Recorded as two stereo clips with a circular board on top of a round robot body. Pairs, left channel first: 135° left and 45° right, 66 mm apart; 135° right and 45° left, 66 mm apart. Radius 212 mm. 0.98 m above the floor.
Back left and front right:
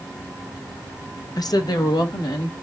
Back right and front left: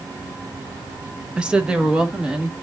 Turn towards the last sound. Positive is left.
turn(degrees=125)